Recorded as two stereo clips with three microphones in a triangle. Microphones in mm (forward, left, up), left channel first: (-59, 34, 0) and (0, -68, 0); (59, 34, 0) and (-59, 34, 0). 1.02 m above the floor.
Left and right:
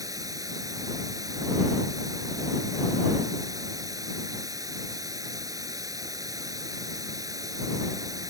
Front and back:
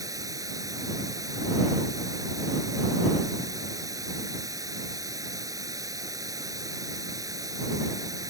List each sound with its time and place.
0.0 s running water: 120° right